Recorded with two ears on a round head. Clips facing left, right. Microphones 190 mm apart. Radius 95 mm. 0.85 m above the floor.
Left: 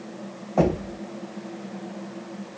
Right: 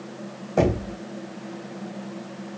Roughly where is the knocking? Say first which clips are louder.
Even; right.